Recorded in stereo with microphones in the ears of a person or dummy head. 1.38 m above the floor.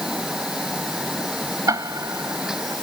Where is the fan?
5° right (ahead or behind).